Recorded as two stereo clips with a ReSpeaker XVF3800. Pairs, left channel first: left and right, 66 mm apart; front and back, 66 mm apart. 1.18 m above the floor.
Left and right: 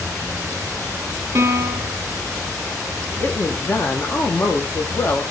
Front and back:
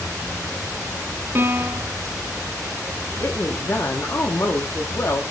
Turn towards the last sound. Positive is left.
turn(degrees=40)